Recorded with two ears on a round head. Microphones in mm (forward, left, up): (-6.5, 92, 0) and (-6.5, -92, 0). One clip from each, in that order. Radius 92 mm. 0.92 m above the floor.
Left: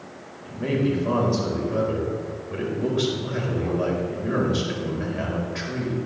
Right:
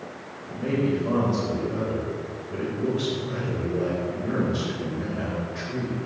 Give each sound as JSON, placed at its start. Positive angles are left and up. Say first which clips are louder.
{"t": 0.5, "sound": "a man speaking", "louder": "left 1 dB", "side_deg": 30, "distance_m": 4.0}